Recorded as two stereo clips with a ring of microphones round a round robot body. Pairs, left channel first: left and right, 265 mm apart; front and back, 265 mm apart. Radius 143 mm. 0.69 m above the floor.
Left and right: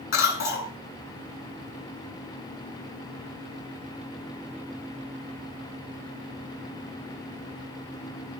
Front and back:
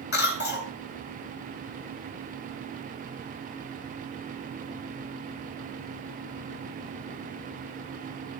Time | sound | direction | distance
0.1 | a cough | 50° left | 4 m